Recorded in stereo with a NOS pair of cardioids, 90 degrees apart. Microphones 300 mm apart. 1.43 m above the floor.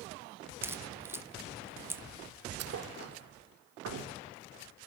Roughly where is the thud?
Ahead right.